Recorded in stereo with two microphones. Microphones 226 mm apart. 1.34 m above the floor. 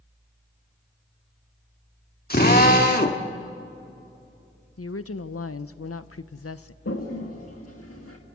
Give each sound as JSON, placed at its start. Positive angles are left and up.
{"t": 2.3, "sound": "a drill", "side_deg": 40, "distance_m": 1.3}
{"t": 4.8, "sound": "a woman speaking", "side_deg": 75, "distance_m": 0.7}
{"t": 6.8, "sound": "a toilet flushing", "side_deg": 80, "distance_m": 1.9}